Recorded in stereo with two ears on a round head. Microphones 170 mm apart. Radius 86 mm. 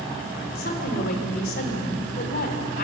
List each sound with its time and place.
0.6 s a woman speaking: 55° left (ahead or behind), 3.5 m